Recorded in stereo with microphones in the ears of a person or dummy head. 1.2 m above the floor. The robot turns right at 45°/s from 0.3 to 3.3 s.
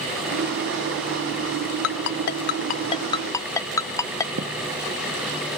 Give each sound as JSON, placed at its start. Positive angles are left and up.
{"t": 1.8, "sound": "a ringtone", "side_deg": 60}
{"t": 4.4, "sound": "a thud", "side_deg": -70}